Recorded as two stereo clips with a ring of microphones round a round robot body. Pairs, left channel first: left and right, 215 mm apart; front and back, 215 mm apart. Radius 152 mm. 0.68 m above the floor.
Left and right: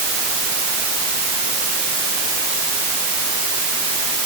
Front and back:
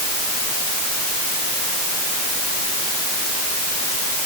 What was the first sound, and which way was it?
Only background noise.